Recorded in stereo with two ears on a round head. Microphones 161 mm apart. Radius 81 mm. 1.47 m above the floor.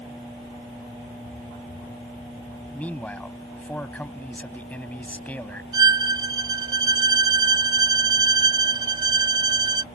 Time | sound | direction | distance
2.7 | a man speaking | 10° left (ahead or behind) | ?
5.7 | a violin | 25° right (ahead or behind) | ?